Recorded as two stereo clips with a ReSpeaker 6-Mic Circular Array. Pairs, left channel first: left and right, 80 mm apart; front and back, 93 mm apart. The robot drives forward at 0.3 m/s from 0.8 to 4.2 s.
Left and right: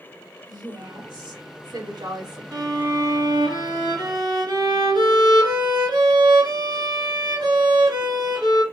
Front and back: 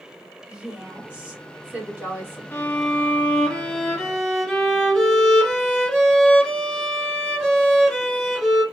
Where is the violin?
70° right, 1.5 m; by 8.6 s 90° right, 1.5 m.